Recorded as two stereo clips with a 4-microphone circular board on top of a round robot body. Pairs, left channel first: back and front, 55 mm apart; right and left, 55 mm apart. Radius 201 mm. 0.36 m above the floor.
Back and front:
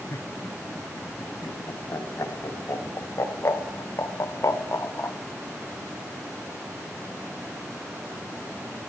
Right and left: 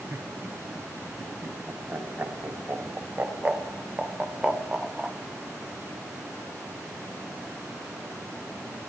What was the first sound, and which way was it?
Laughter, 145° left.